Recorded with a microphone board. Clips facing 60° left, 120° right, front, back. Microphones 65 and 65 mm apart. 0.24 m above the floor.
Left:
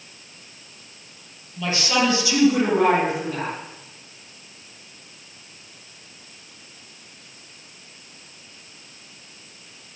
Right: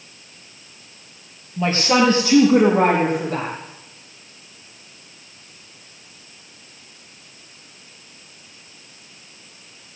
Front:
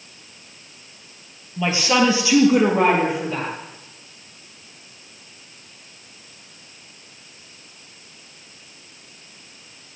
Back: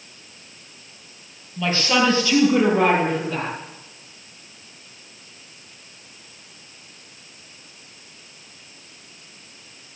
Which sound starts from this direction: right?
A woman speaking, at 1.6 s.